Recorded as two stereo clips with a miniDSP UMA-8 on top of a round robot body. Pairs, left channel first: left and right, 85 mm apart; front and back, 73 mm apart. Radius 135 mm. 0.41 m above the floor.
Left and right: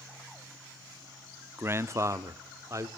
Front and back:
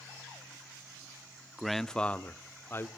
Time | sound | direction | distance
1.6 | a man speaking | 95° right | 0.8 m